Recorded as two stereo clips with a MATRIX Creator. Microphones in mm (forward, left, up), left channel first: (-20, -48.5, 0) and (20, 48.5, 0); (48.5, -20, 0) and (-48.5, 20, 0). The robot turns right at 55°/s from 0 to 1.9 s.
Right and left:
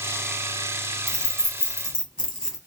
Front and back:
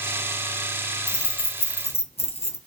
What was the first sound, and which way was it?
Keys jangling, 60° right.